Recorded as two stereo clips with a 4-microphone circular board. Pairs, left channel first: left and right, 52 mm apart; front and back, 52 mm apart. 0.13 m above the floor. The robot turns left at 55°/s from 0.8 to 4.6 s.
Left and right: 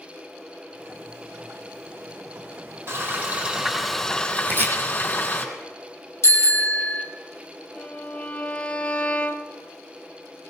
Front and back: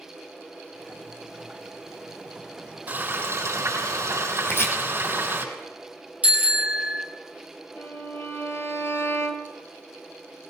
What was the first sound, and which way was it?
Frying, 125° right.